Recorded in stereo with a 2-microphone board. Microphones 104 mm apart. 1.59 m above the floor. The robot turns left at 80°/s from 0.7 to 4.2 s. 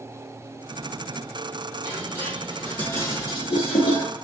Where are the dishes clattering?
50° right (ahead or behind), 1.5 m; by 4.2 s 45° left (ahead or behind), 1.5 m.